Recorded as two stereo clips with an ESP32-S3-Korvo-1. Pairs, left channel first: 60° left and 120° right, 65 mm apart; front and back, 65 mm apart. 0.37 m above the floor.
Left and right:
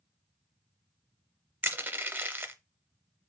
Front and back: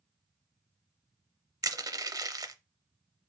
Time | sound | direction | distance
1.6 | crushing | 175° right | 0.6 m